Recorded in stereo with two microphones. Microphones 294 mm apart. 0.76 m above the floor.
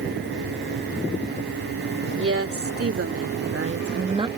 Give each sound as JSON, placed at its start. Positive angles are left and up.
{"t": 2.1, "sound": "a woman speaking", "side_deg": -45}